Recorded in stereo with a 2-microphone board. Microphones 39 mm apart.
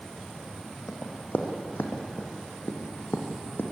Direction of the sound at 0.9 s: 50° left (ahead or behind).